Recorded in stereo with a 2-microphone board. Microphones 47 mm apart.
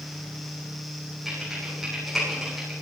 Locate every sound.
1.2 s typing on a keyboard: 5° right (ahead or behind), 9.5 m